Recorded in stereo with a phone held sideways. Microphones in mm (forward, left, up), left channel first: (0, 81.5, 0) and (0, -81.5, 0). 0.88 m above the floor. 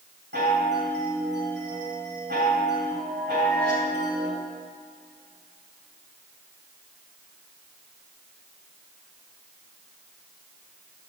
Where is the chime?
85° right, 2.5 m.